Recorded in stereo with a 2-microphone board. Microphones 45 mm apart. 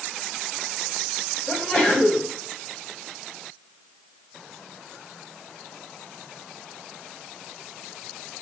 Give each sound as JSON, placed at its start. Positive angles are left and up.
{"t": 1.5, "sound": "a sneeze", "side_deg": 25, "distance_m": 1.2}